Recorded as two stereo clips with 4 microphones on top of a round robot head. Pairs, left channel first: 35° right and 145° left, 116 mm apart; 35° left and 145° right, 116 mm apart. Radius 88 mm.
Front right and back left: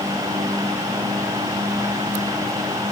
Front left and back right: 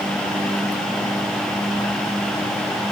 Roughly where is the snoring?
I don't hear snoring.